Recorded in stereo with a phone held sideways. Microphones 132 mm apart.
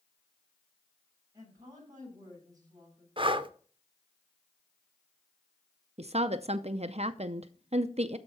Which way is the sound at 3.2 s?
40° right (ahead or behind).